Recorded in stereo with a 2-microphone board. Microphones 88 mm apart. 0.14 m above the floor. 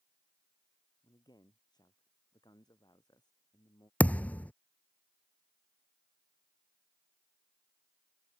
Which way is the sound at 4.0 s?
15° left (ahead or behind).